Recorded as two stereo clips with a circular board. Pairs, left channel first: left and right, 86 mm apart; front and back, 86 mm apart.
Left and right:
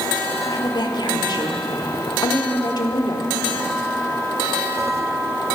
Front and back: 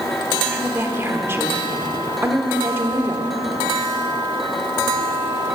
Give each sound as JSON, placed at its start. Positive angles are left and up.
{"t": 0.5, "sound": "a woman speaking", "azimuth_deg": 120, "distance_m": 1.5}